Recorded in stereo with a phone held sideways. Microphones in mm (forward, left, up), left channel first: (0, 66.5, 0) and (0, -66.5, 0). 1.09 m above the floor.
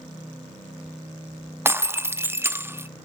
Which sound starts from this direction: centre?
Breaking glass, at 1.6 s.